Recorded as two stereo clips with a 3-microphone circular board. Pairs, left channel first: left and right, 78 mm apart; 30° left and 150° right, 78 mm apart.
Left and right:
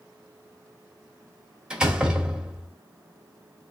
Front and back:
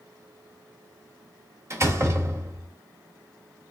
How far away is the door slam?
About 1.0 m.